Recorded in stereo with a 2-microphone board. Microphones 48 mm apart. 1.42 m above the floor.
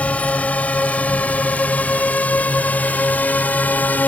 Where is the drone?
30° left (ahead or behind); by 4.1 s 35° left (ahead or behind).